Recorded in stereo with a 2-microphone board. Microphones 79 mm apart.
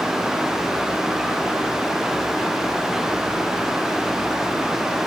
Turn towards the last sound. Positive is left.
No sound to turn to.